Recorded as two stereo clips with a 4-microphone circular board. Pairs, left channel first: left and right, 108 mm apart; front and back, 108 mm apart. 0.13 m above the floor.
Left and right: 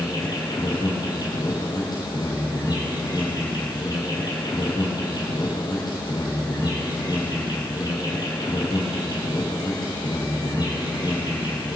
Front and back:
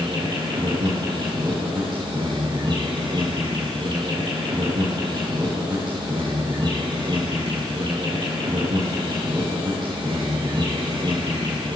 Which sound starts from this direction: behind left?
An insect, at 0.0 s.